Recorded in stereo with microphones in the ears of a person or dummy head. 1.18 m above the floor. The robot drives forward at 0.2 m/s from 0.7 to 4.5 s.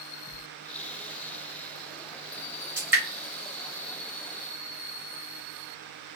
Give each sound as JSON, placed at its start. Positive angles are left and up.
{"t": 0.3, "sound": "a sliding door", "side_deg": 35, "distance_m": 1.2}
{"t": 2.8, "sound": "dripping", "side_deg": -15, "distance_m": 1.6}